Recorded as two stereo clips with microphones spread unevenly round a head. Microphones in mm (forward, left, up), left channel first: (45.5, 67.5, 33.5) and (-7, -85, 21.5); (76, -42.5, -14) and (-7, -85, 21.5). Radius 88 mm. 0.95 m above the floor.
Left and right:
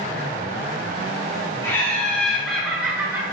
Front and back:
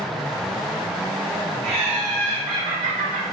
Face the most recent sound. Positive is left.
turn(degrees=180)